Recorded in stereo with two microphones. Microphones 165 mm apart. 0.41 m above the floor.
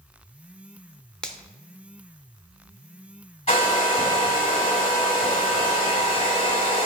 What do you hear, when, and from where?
1.2 s a finger snap: 5° left (ahead or behind), 0.7 m
3.5 s a hair dryer: 35° left (ahead or behind), 2 m